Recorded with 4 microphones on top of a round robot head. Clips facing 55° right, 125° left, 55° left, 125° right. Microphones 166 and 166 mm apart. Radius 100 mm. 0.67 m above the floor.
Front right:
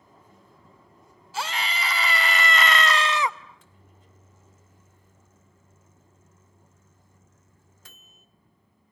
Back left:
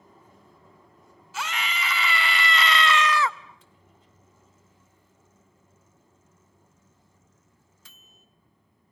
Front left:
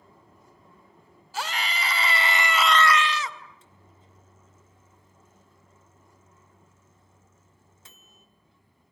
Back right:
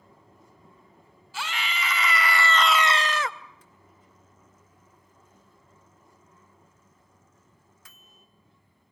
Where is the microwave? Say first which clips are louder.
Front right 1 dB, even; 10° right, 1.3 m.